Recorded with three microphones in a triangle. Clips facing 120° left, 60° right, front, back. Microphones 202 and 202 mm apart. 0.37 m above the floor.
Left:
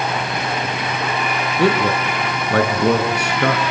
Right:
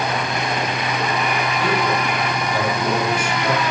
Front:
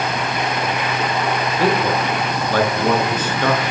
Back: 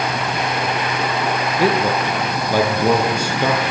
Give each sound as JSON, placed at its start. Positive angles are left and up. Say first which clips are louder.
{"t": 1.6, "sound": "a man speaking", "louder": "left 6 dB, back 1 dB", "azimuth_deg": 100, "distance_m": 6.0}